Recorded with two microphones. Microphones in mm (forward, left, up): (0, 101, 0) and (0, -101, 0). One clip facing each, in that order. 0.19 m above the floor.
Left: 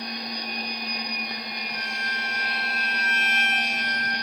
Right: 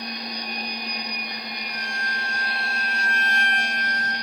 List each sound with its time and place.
1.7 s a violin: 20° left (ahead or behind), 0.9 m